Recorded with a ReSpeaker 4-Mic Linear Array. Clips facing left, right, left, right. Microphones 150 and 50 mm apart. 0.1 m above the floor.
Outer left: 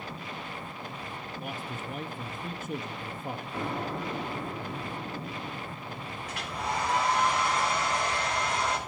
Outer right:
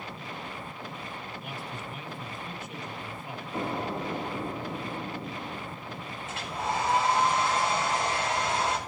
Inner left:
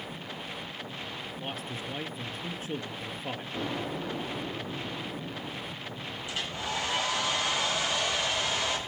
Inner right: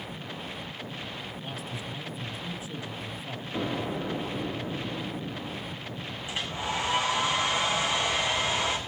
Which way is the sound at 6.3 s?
25° right (ahead or behind).